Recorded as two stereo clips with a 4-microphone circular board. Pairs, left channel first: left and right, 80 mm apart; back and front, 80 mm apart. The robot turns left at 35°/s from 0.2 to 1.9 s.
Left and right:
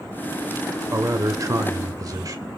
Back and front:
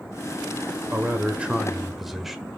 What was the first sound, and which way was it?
A man speaking, 55° right.